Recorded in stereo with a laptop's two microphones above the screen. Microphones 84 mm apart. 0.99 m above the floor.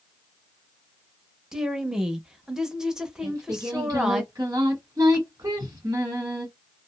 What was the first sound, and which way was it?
A woman speaking, 10° right (ahead or behind).